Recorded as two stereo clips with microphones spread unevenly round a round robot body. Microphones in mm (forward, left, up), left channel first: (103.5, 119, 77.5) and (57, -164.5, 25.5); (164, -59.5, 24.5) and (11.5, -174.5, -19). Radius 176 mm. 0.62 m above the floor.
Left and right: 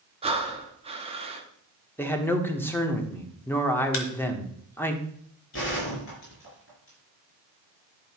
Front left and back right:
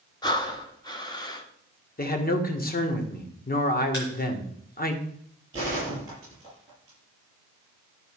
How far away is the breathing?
About 1.5 m.